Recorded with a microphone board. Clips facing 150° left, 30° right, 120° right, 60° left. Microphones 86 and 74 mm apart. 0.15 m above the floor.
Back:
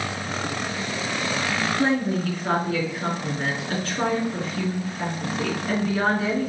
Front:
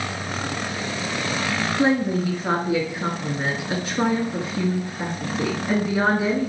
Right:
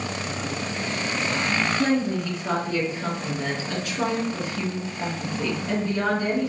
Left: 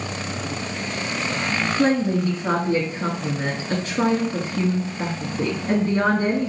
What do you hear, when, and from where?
1.8 s a woman speaking: 35° left, 1.7 m